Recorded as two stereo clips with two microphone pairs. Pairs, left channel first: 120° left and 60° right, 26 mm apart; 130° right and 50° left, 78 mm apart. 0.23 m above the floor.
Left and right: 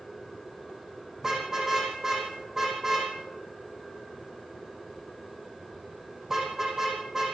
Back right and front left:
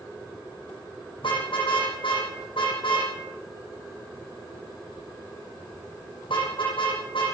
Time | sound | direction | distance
1.2 | a car horn | 135° right | 7 m